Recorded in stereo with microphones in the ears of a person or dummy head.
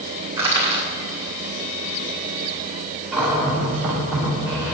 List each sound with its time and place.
0.4 s crushing: 15° right (ahead or behind), 3 m
3.1 s a cupboard door: 5° right (ahead or behind), 4 m